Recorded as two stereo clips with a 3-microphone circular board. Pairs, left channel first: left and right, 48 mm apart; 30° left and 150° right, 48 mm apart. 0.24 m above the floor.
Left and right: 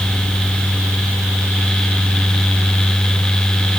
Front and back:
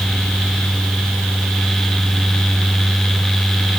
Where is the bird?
I don't hear a bird.